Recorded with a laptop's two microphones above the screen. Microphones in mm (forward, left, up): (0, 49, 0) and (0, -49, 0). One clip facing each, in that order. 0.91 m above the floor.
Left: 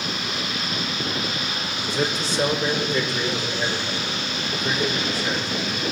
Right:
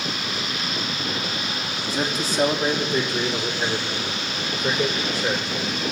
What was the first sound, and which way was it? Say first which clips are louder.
A man speaking: left 1 dB; 40° right (ahead or behind).